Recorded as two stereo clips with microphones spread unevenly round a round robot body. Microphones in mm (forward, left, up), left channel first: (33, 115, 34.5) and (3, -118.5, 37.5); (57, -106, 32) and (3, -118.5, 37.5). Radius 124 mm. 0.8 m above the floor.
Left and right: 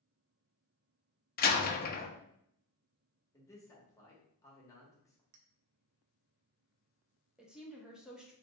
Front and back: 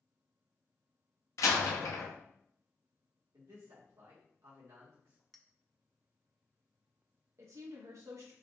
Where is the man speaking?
160° left, 1.1 m.